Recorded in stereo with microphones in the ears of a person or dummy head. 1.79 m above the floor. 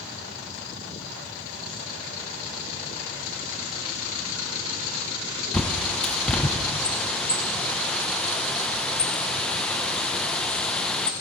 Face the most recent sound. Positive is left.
turn(degrees=10)  # may be behind; listen again after turning